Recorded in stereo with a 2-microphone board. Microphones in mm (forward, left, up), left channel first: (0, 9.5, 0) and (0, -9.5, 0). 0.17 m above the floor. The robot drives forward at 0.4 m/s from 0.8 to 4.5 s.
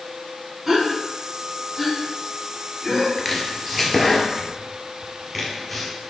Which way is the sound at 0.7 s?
25° right (ahead or behind).